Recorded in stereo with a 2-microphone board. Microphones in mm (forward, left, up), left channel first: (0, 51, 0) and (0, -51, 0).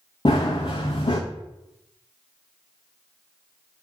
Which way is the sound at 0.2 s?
60° left (ahead or behind).